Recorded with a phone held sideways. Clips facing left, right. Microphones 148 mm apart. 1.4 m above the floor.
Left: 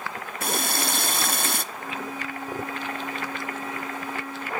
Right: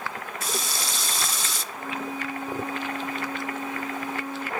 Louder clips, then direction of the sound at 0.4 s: Left 6 dB; 60° left (ahead or behind).